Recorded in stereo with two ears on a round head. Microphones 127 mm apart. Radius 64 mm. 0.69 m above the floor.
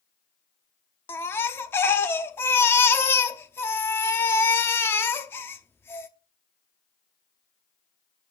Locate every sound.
1.1 s a baby crying: 15° left (ahead or behind), 0.8 m